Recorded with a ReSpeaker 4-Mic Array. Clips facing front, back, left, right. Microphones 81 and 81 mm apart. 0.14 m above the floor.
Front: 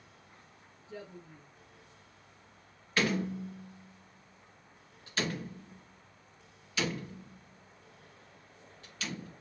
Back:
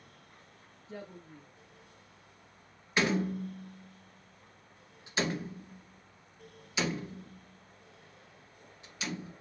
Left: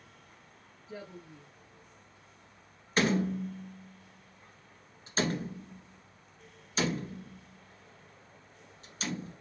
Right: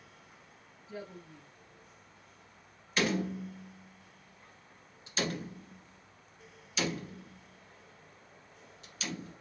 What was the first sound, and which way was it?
A woman speaking, 145° left.